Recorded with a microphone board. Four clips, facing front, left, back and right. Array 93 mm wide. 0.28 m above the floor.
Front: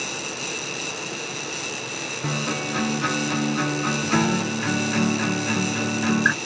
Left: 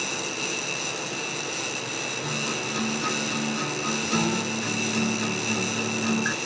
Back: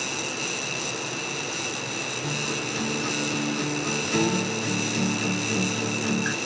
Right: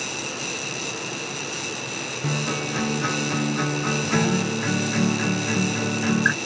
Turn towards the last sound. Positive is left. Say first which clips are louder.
# right 6 dB, front 6 dB
turn(degrees=-30)